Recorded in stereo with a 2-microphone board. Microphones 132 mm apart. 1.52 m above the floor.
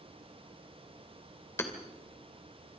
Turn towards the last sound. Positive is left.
turn(degrees=20)  # may be behind; listen again after turning